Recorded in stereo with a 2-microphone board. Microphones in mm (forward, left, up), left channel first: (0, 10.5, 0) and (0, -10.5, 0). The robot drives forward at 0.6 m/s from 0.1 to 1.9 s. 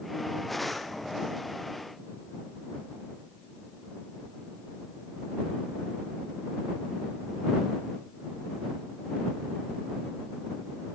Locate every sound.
Only background noise.